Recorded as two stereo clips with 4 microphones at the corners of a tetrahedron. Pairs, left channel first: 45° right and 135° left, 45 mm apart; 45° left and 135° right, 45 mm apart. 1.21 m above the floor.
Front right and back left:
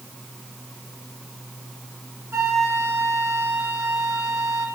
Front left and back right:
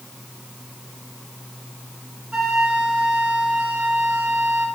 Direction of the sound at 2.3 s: 150° left.